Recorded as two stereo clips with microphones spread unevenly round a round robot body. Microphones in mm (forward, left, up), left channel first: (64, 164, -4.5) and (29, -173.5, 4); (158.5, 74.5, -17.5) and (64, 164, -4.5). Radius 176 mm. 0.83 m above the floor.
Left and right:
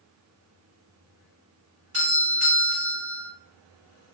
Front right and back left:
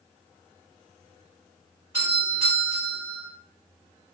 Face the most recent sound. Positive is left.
turn(degrees=-145)